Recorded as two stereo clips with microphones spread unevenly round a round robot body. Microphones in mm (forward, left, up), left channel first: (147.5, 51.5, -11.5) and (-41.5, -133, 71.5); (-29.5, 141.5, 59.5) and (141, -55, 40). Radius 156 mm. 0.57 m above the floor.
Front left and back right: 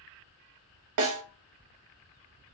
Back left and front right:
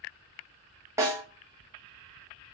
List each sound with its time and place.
1.0 s a snare drum: 130° right, 0.8 m